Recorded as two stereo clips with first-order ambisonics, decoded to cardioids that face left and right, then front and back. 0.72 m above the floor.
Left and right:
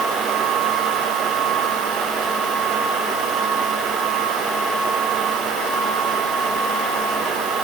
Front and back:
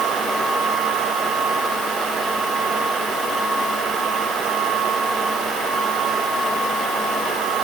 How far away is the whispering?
I don't hear whispering.